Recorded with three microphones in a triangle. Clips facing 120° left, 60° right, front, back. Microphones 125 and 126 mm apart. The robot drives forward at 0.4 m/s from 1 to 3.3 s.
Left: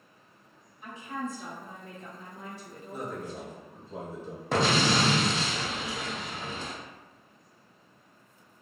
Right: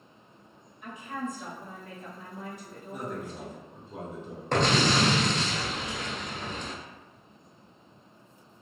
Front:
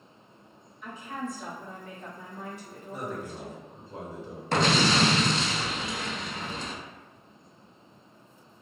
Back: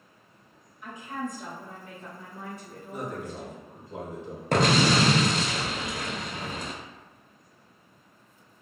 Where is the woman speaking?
120° left, 1.5 m; by 3.8 s 150° left, 2.0 m.